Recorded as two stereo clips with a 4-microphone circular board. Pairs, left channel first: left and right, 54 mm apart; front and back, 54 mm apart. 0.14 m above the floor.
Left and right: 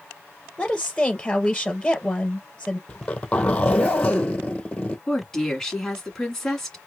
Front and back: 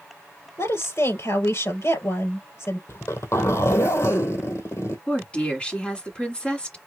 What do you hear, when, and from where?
0.6 s a woman speaking: 15° left, 3 m
2.9 s a zipper: 25° left, 2 m
5.1 s a woman speaking: 25° left, 1.7 m